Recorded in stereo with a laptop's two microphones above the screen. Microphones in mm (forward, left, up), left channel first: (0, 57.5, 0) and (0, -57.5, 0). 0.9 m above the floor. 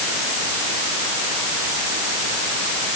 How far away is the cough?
No cough in this recording.